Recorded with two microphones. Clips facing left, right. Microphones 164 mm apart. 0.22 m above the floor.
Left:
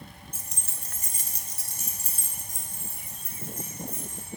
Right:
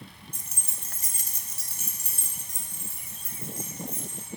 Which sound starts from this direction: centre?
Keys jangling, at 0.3 s.